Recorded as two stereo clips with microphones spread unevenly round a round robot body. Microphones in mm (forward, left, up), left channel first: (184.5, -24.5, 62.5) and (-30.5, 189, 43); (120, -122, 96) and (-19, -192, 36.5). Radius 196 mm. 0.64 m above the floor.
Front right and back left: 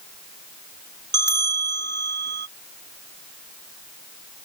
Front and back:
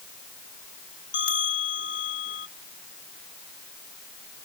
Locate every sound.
1.1 s a bell: 85° left